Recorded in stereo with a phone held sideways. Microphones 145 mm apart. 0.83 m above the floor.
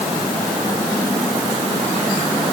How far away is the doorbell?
No doorbell in this recording.